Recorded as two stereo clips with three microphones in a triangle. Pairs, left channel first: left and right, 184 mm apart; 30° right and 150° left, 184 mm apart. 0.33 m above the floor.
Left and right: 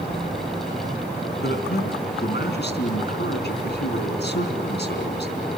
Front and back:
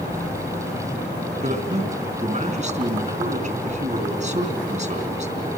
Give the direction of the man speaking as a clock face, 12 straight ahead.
9 o'clock.